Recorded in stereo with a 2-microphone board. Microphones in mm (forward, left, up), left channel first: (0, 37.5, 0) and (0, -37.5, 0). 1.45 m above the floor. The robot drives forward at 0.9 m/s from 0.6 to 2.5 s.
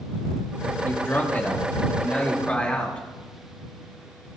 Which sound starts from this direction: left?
A man speaking, at 0.8 s.